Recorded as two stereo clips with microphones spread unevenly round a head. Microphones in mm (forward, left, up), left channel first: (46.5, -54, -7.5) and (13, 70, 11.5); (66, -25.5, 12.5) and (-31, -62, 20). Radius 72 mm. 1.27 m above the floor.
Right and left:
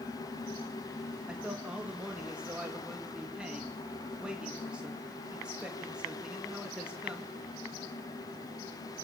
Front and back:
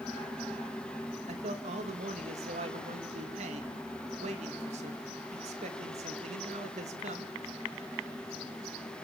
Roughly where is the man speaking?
Behind.